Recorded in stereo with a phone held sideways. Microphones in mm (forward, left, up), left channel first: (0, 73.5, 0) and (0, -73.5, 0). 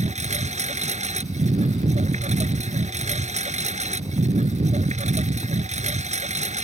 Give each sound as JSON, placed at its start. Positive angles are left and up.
{"t": 0.0, "sound": "a lawn mower", "side_deg": -50}